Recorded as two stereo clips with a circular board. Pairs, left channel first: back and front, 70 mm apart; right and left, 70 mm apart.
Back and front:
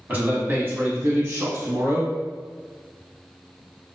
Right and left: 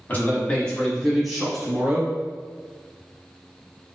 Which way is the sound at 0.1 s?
55° right.